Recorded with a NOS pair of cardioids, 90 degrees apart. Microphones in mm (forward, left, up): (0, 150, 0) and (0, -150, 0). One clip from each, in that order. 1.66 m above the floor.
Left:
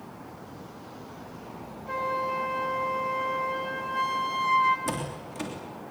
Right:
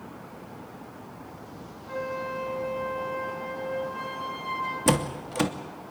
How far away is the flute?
About 5 m.